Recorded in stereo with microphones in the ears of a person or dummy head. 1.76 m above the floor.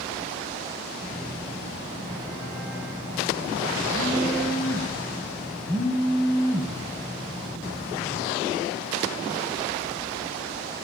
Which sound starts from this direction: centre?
A phone buzzing, at 1.0 s.